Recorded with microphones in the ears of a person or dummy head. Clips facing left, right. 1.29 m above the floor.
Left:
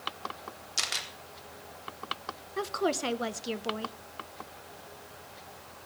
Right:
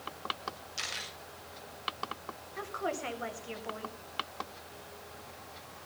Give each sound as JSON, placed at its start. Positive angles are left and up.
{"t": 0.8, "sound": "a camera shutter", "side_deg": 60, "distance_m": 3.5}
{"t": 2.6, "sound": "a woman speaking", "side_deg": 45, "distance_m": 1.2}